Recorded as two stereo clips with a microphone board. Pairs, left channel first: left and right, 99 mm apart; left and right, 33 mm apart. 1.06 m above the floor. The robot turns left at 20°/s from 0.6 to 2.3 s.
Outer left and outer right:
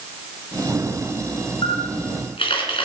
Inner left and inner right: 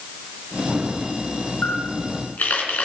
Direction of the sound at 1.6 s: 75° left (ahead or behind).